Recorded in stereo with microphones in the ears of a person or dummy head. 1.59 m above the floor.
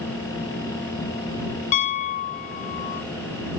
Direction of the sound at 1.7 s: 40° left (ahead or behind).